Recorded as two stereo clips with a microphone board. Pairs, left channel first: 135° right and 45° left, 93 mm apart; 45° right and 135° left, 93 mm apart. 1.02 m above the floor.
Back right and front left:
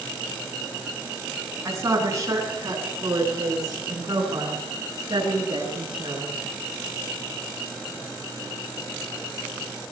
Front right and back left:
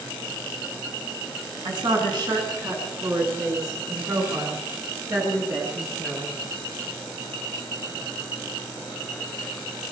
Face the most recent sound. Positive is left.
turn(degrees=80)